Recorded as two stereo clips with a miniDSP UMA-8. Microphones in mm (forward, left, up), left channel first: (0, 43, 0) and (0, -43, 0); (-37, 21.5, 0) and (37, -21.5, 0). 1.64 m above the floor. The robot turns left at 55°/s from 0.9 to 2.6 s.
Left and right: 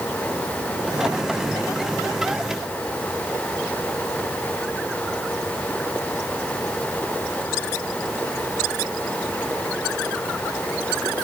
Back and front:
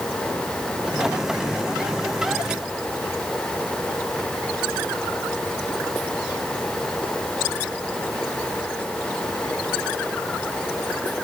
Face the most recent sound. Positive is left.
No sound to turn to.